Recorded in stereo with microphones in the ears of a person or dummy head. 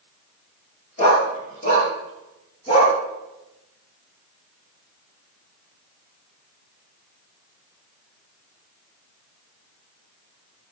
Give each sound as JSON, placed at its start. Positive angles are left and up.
{"t": 1.0, "sound": "a dog barking", "side_deg": 35, "distance_m": 7.0}